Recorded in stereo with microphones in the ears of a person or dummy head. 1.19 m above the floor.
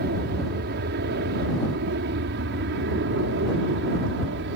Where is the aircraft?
60° right (ahead or behind); by 4.6 s 65° right (ahead or behind).